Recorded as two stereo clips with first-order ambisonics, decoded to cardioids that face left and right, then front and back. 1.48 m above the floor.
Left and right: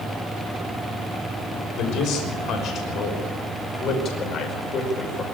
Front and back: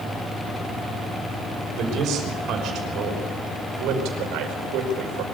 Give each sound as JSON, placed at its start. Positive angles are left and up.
{"t": 1.8, "sound": "a man speaking", "azimuth_deg": 130, "distance_m": 6.0}